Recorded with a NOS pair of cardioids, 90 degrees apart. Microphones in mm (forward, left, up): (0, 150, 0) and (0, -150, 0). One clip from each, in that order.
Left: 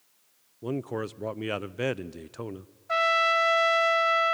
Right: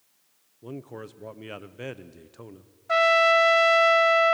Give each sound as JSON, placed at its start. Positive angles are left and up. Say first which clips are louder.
{"t": 0.6, "sound": "a man speaking", "louder": "left 7 dB", "azimuth_deg": 35, "distance_m": 0.8}
{"t": 2.9, "sound": "a trumpet", "louder": "right 4 dB", "azimuth_deg": -25, "distance_m": 1.1}